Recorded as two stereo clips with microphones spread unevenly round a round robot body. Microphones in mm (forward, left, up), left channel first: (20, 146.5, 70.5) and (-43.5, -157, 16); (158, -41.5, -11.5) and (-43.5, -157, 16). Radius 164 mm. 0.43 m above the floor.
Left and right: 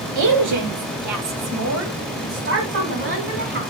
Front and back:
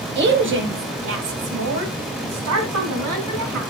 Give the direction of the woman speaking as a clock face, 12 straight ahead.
4 o'clock.